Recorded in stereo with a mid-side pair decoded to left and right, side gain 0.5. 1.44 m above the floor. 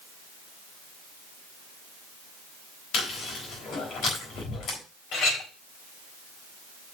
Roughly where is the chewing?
Left.